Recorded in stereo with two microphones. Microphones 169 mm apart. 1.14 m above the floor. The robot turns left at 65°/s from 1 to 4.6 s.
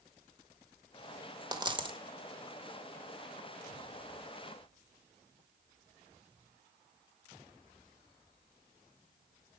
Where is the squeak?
I don't hear a squeak.